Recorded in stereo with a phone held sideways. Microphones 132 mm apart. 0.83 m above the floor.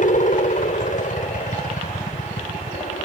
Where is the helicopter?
65° left (ahead or behind); by 3.1 s 70° left (ahead or behind).